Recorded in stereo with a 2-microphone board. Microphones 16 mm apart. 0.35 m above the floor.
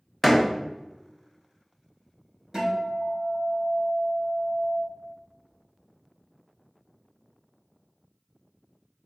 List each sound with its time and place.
0.2 s a door slam: 10° right (ahead or behind), 0.7 m
2.5 s a guitar: 45° right (ahead or behind), 2.0 m